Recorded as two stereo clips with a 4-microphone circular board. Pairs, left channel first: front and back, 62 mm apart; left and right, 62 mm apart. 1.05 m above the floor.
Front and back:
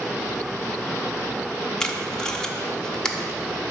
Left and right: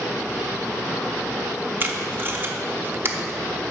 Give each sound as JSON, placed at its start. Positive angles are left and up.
{"t": 1.8, "sound": "tape being pulled", "azimuth_deg": -70, "distance_m": 0.7}